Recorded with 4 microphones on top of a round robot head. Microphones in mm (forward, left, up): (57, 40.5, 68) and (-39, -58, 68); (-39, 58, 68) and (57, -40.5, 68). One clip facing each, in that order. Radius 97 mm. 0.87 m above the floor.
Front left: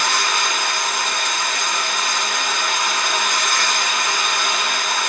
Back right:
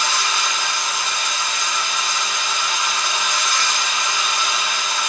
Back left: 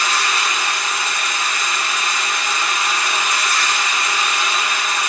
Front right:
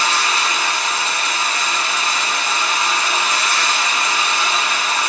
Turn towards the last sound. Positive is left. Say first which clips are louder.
# front left 2 dB, front right 1 dB
turn(degrees=10)